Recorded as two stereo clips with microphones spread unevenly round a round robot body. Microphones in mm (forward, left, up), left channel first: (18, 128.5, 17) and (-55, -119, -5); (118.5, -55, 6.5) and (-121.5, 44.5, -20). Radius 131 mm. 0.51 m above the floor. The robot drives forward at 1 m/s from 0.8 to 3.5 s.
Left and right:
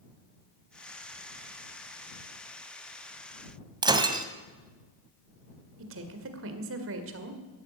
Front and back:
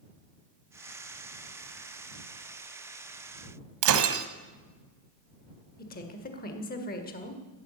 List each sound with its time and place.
3.8 s breaking glass: straight behind, 1.4 m
5.8 s a woman speaking: 80° right, 1.8 m